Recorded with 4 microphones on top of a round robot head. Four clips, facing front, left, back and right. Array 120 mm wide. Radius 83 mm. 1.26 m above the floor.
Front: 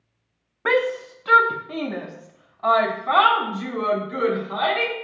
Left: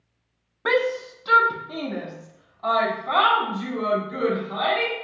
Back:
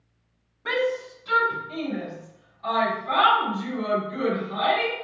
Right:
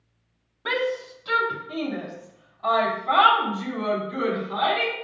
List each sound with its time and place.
0.7 s a shout: 30° left, 0.8 m; by 4.9 s 5° left, 3 m